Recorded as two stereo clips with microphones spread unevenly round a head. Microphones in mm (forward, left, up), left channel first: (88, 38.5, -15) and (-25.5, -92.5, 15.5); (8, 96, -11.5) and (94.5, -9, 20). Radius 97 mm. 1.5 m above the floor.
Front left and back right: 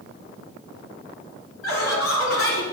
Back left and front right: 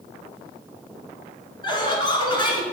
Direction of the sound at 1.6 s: 75° left.